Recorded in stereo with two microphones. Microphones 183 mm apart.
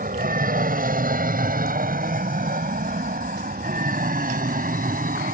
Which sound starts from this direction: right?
An aircraft, at 0.0 s.